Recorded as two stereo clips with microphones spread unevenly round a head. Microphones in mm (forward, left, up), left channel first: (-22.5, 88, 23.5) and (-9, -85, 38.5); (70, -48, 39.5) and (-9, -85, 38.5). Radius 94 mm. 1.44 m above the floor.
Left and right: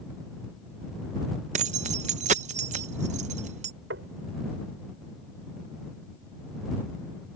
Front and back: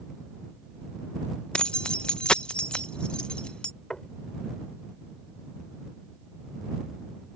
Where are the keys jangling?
50° right.